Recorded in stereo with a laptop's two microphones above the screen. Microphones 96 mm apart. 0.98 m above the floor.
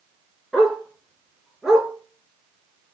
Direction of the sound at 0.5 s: Centre (ahead or behind).